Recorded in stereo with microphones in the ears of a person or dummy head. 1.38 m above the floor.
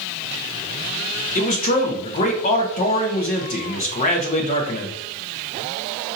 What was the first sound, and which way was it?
A man speaking, 40° left (ahead or behind).